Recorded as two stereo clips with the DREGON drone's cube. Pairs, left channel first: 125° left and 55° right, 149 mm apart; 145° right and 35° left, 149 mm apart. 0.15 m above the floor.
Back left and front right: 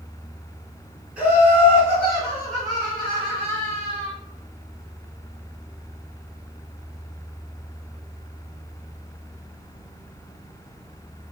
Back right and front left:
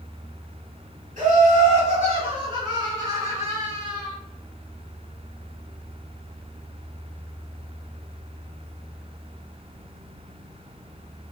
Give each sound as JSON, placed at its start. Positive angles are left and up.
{"t": 1.2, "sound": "laughter", "azimuth_deg": 25, "distance_m": 1.8}